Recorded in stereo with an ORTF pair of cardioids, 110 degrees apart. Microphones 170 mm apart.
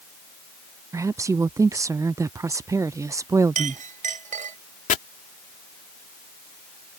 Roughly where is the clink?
Ahead right.